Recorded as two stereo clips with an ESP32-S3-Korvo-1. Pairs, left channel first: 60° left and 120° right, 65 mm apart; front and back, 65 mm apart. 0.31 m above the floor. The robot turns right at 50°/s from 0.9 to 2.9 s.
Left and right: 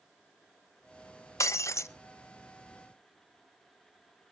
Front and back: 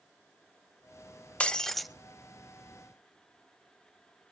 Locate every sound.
1.4 s breaking glass: 65° left, 0.7 m; by 1.9 s 90° left, 0.7 m